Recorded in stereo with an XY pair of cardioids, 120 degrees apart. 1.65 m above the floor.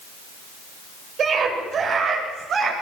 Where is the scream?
50° right, 8.5 m.